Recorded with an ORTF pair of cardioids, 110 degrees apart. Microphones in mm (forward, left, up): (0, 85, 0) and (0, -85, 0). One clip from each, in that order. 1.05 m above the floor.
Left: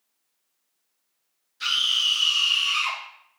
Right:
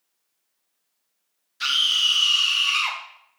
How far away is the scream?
About 1.2 m.